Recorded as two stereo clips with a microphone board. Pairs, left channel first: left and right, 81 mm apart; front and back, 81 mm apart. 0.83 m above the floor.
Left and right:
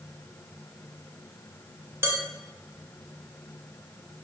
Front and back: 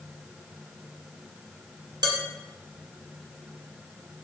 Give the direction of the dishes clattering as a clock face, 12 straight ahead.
5 o'clock.